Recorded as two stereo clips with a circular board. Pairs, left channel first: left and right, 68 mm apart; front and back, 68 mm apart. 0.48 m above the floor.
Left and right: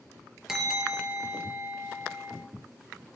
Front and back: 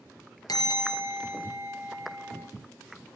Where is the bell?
5° right, 4.5 m.